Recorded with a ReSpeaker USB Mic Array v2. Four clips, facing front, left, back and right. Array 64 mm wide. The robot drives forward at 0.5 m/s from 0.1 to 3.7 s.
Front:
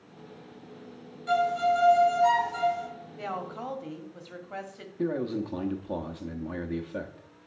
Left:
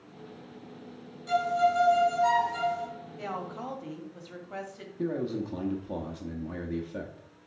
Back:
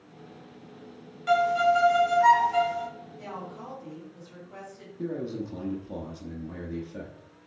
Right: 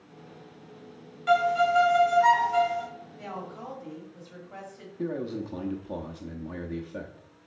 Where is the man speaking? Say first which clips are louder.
Left 1 dB, front 3 dB; straight ahead, 0.9 m.